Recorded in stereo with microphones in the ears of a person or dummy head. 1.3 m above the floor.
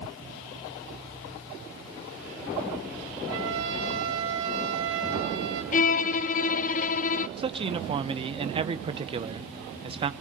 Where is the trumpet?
70° right (ahead or behind), 5 m.